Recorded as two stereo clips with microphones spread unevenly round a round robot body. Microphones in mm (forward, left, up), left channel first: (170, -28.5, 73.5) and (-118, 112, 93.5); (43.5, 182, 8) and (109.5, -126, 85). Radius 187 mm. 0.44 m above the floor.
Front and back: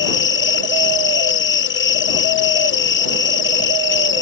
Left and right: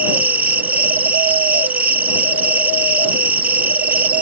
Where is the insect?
15° left.